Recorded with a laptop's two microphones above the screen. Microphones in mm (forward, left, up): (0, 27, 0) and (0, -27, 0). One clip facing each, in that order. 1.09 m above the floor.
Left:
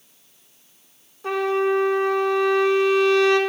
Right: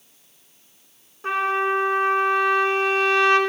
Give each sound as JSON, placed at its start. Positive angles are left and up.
{"t": 1.2, "sound": "a trumpet", "side_deg": -40, "distance_m": 1.0}